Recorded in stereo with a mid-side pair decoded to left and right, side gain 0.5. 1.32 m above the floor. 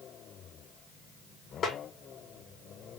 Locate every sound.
1.6 s a snare drum: 40° left, 1.2 m